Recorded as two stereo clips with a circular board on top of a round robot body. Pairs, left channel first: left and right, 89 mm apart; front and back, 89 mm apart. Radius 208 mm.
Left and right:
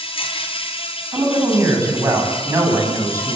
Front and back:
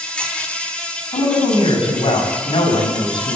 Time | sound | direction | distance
0.0 | an insect | 80° left | 4 m
1.1 | a woman speaking | 30° right | 7.5 m